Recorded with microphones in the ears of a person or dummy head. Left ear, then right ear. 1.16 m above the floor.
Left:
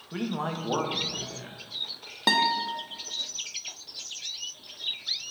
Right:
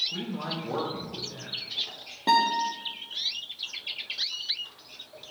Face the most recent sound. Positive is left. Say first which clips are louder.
# right 1 dB
turn(degrees=70)  # may be behind; listen again after turning